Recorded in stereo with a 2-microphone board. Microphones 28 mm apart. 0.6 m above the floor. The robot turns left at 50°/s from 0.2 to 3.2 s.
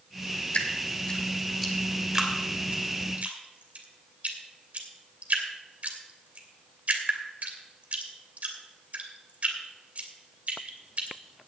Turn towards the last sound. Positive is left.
turn(degrees=-55)  # may be behind; listen again after turning